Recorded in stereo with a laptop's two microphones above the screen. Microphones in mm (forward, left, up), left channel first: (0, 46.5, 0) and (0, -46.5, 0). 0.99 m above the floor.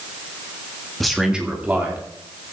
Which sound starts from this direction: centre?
A man speaking, at 1.0 s.